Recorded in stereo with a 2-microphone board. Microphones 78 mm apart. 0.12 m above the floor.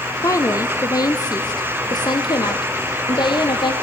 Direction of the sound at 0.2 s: 45° left (ahead or behind).